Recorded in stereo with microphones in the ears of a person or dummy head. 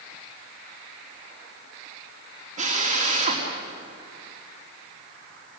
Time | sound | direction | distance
2.6 | a drill | 40° right (ahead or behind) | 3.5 m